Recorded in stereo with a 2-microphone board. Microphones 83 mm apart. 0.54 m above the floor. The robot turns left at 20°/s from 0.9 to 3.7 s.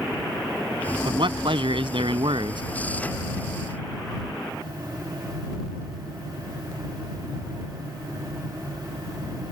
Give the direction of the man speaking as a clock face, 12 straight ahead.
2 o'clock.